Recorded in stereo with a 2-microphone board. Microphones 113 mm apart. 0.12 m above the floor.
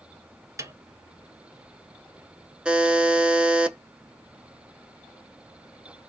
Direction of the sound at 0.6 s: 30° right (ahead or behind).